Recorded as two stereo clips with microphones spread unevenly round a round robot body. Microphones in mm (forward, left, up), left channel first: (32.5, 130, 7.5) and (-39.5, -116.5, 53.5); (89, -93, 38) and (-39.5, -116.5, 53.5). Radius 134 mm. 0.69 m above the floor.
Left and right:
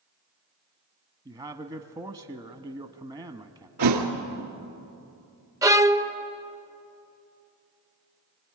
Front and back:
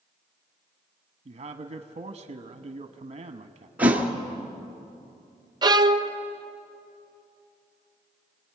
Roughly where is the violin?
Behind.